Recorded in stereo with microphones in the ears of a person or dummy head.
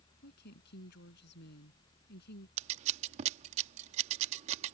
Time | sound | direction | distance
0.2 | a woman speaking | 60° left (ahead or behind) | ?
2.6 | scissors | 40° right (ahead or behind) | ?